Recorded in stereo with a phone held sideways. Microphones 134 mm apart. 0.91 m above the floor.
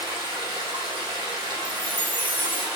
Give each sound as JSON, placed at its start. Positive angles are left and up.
{"t": 0.0, "sound": "running water", "side_deg": -35, "distance_m": 1.0}
{"t": 1.6, "sound": "a chime", "side_deg": 15, "distance_m": 0.5}